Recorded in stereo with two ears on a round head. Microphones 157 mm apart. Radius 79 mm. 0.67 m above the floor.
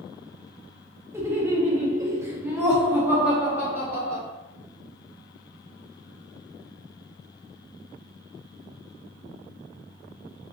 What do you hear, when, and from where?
1.1 s laughter: 15° right (ahead or behind), 0.9 m; by 4.2 s 5° right (ahead or behind), 1.5 m